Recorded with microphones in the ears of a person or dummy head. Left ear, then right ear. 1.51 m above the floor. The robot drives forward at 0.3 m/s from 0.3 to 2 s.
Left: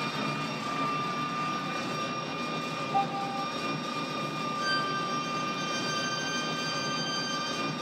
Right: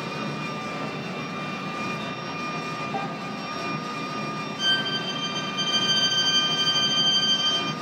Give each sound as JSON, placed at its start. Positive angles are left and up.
{"t": 0.0, "sound": "an engine running", "side_deg": 15, "distance_m": 0.7}
{"t": 2.9, "sound": "a piano", "side_deg": -10, "distance_m": 0.6}
{"t": 4.6, "sound": "a violin", "side_deg": -35, "distance_m": 0.7}